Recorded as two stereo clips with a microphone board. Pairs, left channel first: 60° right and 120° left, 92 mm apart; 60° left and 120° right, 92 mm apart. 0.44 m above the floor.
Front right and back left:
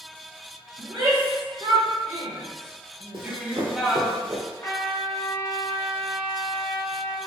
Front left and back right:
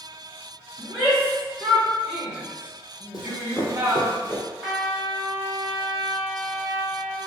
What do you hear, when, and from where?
0.8 s a shout: 140° left, 1.9 m; by 4.1 s 145° right, 1.1 m
3.1 s running footsteps: 100° left, 1.0 m; by 4.4 s 135° left, 2.5 m
4.6 s a trumpet: 50° right, 1.6 m